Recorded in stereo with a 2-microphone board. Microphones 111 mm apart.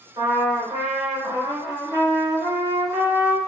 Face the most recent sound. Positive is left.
turn(degrees=-40)  # may be behind; listen again after turning